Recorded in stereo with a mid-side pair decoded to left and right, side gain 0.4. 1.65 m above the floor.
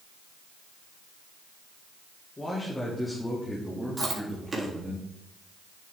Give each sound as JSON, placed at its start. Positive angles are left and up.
{"t": 2.4, "sound": "a man speaking", "azimuth_deg": 20, "distance_m": 3.5}
{"t": 4.0, "sound": "chewing", "azimuth_deg": -35, "distance_m": 3.5}